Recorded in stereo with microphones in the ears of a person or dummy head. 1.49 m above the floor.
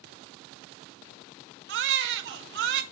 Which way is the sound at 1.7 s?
65° right (ahead or behind).